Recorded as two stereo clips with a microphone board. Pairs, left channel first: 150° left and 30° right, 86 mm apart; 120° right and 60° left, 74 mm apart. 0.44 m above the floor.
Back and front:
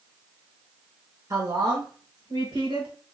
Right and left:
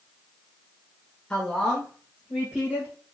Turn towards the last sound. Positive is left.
turn(degrees=-10)